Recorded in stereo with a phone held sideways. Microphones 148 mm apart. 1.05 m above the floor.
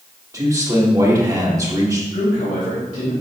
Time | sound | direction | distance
0.3 | a man speaking | 25° right (ahead or behind) | 2.5 m
2.1 | a man speaking | 65° left (ahead or behind) | 2.5 m